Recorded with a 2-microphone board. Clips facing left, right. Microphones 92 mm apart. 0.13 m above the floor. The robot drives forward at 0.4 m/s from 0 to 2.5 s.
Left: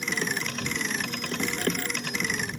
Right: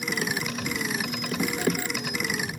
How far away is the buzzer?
No buzzer in this recording.